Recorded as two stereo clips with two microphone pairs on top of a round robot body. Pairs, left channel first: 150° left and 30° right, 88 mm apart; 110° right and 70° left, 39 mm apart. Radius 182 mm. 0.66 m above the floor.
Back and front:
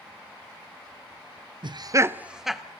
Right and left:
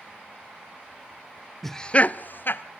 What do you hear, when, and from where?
1.6 s laughter: 35° right, 0.8 m; by 2.6 s 125° right, 1.2 m